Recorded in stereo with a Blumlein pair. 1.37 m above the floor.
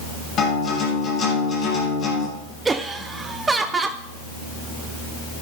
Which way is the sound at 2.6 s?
15° right.